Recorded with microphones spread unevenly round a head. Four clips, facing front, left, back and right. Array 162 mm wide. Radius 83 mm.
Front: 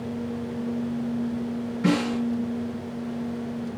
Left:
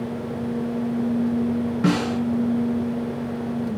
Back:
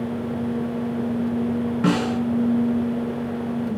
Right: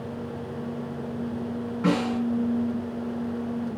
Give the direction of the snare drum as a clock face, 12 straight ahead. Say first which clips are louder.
Left 1 dB, back 1 dB; 8 o'clock.